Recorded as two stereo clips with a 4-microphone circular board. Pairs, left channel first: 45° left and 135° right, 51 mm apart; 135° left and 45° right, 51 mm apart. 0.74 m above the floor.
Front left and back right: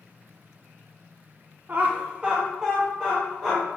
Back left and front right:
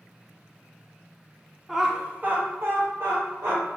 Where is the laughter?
130° right, 0.7 m; by 3.6 s 45° right, 1.4 m.